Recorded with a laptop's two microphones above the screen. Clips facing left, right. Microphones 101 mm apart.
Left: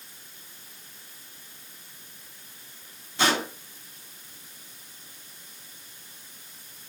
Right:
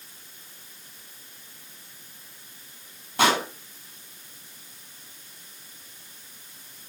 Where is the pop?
55° right (ahead or behind), 9 m.